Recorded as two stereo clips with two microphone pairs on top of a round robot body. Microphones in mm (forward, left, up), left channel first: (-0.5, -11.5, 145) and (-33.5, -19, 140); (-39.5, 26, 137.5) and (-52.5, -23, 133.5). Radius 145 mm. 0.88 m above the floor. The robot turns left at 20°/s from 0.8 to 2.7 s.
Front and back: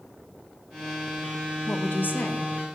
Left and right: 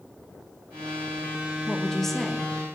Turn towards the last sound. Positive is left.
turn(degrees=-20)